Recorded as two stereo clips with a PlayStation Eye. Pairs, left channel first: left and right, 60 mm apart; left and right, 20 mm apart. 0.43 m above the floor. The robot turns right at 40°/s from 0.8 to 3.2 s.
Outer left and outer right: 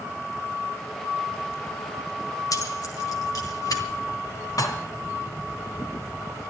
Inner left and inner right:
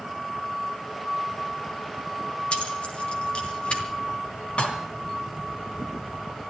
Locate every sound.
2.5 s keys jangling: 65° left (ahead or behind), 2.5 m; by 3.8 s 70° left (ahead or behind), 2.5 m
4.6 s dishes clattering: 70° left (ahead or behind), 2.5 m